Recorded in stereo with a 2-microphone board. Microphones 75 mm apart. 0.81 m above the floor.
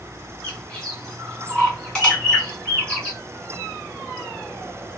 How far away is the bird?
About 2 m.